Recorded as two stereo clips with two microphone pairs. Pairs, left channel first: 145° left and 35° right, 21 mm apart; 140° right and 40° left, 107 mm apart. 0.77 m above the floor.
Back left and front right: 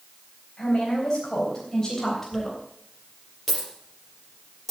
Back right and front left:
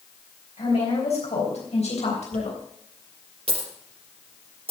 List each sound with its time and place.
0.6 s a woman speaking: 160° right, 4 m; by 2.6 s 140° right, 3 m
2.3 s a dropped coin: 75° left, 4 m